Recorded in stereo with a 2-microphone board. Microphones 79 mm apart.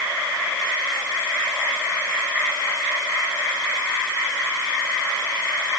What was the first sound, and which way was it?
Only background noise.